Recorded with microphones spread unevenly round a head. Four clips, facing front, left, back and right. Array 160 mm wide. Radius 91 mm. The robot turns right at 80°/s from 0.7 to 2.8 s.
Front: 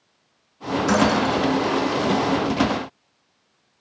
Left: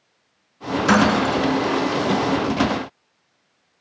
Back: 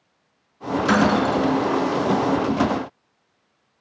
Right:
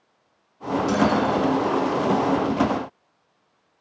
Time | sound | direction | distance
0.9 | breaking glass | 95° left | 6 m